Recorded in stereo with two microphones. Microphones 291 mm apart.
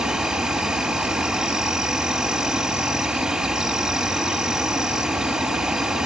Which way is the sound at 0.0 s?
Centre (ahead or behind).